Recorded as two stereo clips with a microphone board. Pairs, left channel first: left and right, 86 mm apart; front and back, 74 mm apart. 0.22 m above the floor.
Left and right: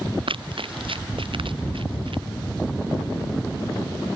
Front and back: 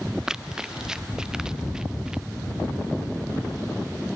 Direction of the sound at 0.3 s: 100° right.